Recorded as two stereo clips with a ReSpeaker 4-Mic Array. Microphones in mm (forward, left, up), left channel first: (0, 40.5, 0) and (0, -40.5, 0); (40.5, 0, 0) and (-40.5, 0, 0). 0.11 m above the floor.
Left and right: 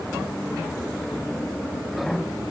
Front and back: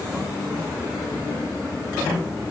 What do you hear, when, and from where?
Only background noise.